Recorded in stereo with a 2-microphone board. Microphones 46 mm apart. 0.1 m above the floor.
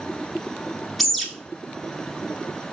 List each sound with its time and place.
1.0 s a bird: centre (ahead or behind), 0.7 m